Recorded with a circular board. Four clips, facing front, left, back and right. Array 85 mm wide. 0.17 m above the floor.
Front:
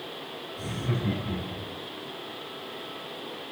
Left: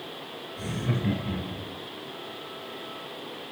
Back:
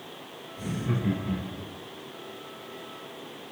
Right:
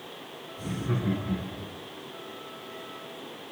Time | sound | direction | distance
0.6 | laughter | 100° left | 2.5 m